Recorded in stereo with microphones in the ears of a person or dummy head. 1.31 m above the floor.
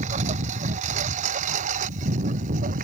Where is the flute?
No flute in this recording.